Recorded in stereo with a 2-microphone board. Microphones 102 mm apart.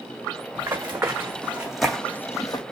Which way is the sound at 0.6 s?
30° right (ahead or behind).